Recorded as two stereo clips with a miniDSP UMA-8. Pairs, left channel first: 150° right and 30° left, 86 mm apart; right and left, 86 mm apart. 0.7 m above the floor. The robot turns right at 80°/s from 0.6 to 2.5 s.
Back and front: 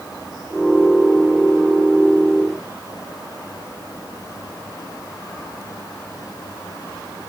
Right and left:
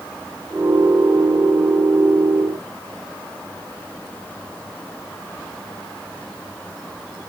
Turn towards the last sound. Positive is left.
No sound to turn to.